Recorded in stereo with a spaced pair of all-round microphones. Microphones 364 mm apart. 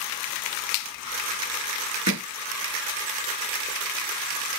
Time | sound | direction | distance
2.1 | hammering | 45° right (ahead or behind) | 4 m